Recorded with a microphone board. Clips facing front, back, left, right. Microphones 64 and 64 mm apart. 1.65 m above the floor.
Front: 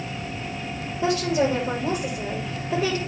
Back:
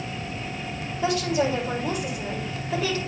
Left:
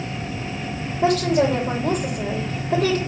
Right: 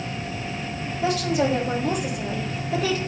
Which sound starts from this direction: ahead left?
A woman speaking, at 1.0 s.